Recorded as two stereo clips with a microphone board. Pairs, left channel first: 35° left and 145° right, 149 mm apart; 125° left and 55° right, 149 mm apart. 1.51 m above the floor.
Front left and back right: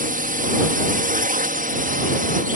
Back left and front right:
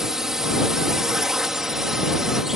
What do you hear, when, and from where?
0.0 s a drone: 140° right